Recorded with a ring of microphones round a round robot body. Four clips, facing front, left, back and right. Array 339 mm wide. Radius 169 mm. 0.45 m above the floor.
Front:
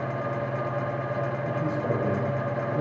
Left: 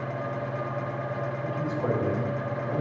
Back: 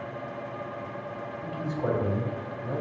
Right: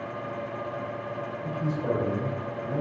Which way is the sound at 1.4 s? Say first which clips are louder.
Right 1 dB, front 3 dB; 130° left.